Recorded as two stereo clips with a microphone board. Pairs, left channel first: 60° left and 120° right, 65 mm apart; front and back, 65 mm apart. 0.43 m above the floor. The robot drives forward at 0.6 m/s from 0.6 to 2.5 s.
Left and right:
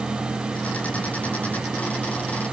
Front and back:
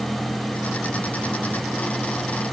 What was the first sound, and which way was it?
Only background noise.